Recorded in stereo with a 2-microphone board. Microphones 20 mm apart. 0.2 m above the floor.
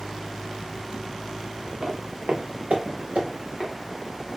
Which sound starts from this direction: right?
Footsteps, at 1.8 s.